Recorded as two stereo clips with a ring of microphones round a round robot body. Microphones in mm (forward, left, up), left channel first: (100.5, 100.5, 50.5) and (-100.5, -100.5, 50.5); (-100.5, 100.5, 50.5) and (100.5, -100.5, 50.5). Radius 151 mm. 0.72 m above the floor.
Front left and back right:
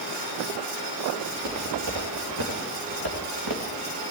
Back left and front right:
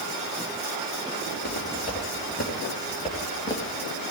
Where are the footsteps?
165° right, 5.5 m; by 4.1 s 130° right, 2.5 m.